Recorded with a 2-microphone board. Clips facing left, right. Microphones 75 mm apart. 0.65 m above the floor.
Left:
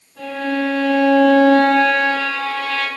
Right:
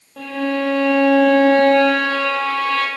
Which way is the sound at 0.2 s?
70° right (ahead or behind).